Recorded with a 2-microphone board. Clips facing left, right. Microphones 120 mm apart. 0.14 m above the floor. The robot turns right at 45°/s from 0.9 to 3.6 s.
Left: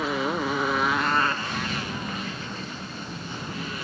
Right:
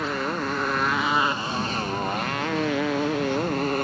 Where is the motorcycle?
5° left (ahead or behind); by 3.9 s 55° right (ahead or behind).